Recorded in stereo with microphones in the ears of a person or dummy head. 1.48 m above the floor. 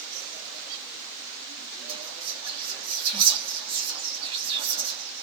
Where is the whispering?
30° right (ahead or behind), 2.5 m.